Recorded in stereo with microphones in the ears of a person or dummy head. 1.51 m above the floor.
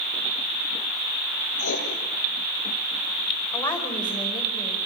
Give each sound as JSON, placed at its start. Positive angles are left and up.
{"t": 1.6, "sound": "writing", "side_deg": 80, "distance_m": 9.0}
{"t": 3.5, "sound": "a woman speaking", "side_deg": 20, "distance_m": 5.0}